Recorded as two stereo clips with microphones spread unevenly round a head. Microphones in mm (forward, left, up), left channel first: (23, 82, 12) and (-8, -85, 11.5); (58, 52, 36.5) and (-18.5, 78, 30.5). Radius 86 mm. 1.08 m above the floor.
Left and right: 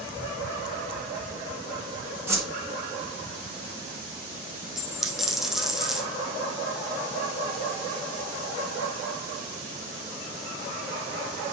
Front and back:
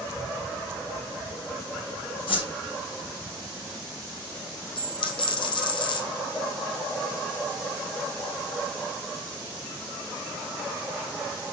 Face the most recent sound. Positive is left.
turn(degrees=-10)